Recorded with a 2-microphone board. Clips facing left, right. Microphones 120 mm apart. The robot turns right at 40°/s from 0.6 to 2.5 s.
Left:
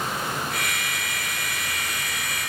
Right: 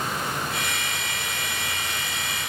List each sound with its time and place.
Only background noise.